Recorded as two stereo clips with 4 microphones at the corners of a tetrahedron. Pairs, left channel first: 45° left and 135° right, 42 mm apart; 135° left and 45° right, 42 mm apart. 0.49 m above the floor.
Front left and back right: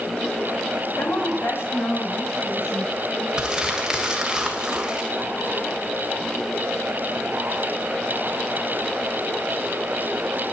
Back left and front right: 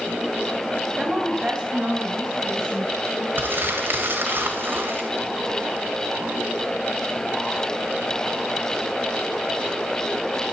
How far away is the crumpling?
About 2.5 m.